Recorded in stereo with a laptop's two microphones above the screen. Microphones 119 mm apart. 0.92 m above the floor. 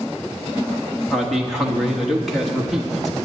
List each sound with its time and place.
1.1 s a man speaking: centre (ahead or behind), 1.0 m